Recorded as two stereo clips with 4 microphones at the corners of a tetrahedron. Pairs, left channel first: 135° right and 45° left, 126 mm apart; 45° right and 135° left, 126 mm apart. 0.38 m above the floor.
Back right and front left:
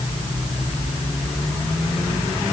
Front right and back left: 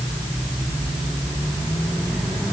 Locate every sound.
Only background noise.